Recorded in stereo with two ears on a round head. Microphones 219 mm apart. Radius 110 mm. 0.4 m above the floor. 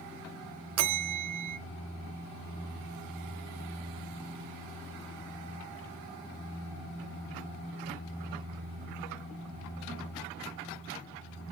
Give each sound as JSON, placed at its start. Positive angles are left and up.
{"t": 0.8, "sound": "a bell", "side_deg": -70, "distance_m": 0.5}